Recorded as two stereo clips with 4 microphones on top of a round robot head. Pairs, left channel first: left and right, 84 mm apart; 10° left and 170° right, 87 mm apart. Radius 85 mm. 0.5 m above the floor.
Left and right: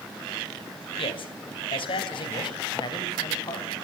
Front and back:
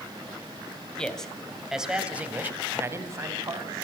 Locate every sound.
1.0 s a man speaking: 90° left, 3 m; by 3.9 s 145° left, 3.5 m